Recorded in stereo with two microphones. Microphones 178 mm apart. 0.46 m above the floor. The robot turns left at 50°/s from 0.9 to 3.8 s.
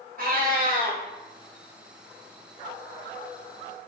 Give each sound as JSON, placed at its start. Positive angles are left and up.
{"t": 0.2, "sound": "a cat meowing", "side_deg": -50, "distance_m": 0.7}